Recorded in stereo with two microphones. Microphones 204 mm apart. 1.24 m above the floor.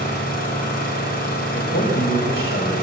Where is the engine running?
50° left (ahead or behind), 6 m.